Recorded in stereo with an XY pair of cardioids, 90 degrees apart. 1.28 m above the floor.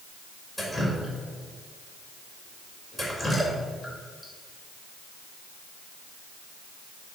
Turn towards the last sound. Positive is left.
turn(degrees=15)